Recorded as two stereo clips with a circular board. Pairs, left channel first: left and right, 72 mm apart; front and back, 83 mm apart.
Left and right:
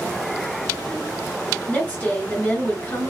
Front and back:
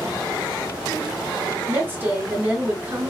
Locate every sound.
1.7 s a woman speaking: 135° left, 1.1 m